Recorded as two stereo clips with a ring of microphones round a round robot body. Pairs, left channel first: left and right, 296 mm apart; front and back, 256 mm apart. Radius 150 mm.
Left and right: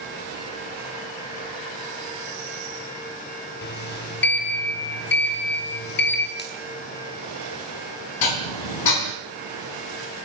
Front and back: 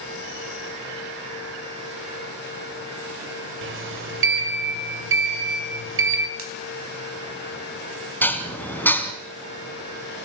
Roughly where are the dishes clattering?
Left.